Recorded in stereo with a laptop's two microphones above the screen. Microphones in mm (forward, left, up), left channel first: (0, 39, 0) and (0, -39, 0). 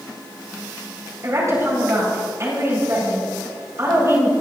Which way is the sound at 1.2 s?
40° right (ahead or behind).